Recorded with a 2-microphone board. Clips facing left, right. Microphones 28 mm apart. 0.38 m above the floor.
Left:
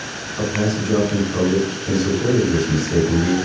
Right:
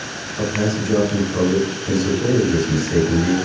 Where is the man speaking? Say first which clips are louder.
Even; 40° left (ahead or behind), 1.9 m.